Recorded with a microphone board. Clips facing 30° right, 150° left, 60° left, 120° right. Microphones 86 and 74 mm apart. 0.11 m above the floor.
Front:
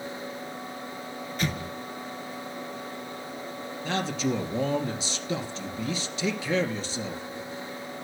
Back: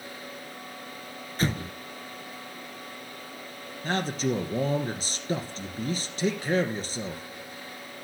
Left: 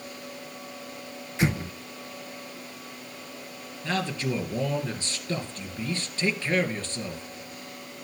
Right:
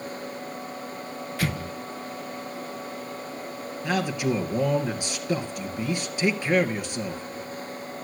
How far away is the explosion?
About 0.8 m.